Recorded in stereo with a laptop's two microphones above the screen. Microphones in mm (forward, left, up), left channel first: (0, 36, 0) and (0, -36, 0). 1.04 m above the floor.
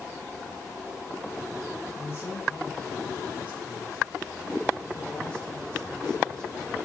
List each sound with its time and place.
1.9 s a man speaking: 35° left (ahead or behind), 10 m; by 6.8 s 10° left (ahead or behind), 12 m